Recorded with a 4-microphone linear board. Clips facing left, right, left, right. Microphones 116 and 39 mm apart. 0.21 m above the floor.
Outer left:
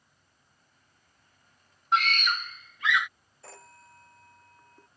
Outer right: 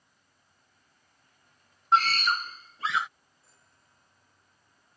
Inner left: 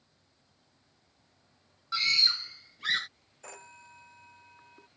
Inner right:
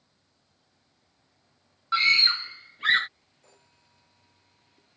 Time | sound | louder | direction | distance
1.9 | a scream | outer right 3 dB, inner right 6 dB | 35° right (ahead or behind) | ?
3.4 | a phone ringing | outer left 19 dB, inner left 14 dB | 85° left | ?